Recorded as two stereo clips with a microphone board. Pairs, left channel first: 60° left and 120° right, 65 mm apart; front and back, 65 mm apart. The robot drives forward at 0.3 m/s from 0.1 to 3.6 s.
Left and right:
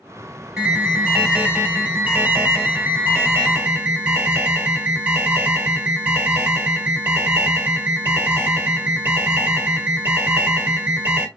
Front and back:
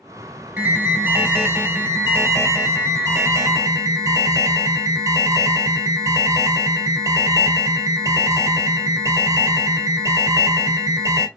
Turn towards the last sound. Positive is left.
turn(degrees=-175)